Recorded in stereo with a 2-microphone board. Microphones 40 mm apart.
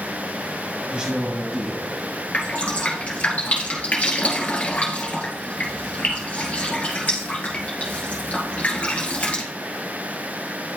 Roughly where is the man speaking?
Right.